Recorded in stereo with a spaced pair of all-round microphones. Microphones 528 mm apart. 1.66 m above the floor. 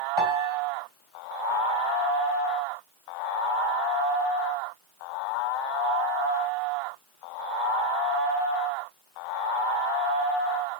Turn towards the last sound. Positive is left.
turn(degrees=-60)  # may be behind; listen again after turning